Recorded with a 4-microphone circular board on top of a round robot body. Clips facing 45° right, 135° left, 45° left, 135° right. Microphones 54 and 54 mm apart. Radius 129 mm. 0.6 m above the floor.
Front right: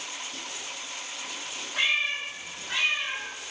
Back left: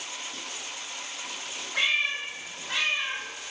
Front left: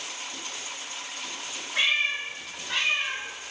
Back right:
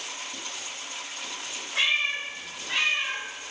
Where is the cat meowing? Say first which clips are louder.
Even, even; 130° left, 1.3 m; by 3.2 s 165° left, 0.9 m.